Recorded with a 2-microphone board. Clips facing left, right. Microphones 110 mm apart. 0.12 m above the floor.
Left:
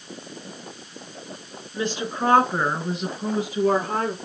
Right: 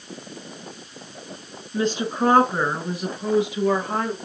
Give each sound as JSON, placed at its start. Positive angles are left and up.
{"t": 1.7, "sound": "a woman speaking", "side_deg": -30, "distance_m": 1.2}